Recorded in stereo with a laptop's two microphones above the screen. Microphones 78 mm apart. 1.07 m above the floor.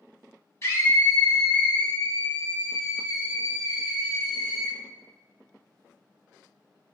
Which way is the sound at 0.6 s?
40° left (ahead or behind).